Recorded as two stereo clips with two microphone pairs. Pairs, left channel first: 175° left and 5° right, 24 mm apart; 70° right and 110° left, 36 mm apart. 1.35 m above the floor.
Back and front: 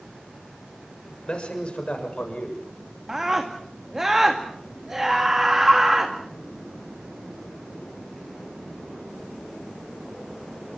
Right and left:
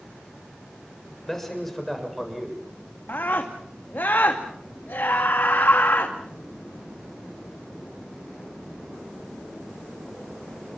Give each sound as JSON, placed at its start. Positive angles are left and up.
{"t": 1.3, "sound": "a man speaking", "azimuth_deg": -145, "distance_m": 7.0}
{"t": 3.1, "sound": "a scream", "azimuth_deg": -80, "distance_m": 2.0}